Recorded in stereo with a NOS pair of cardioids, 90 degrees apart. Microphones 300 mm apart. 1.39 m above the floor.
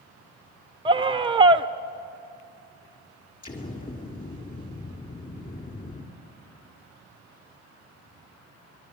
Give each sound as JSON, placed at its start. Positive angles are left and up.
{"t": 0.8, "sound": "a scream", "azimuth_deg": -15, "distance_m": 0.5}
{"t": 3.4, "sound": "an explosion", "azimuth_deg": 25, "distance_m": 3.0}